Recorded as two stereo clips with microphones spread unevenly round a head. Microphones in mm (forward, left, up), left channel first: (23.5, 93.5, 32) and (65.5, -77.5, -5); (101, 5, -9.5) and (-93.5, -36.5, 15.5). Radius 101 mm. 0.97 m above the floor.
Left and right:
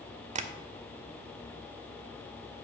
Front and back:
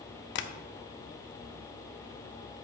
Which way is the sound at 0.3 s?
25° right.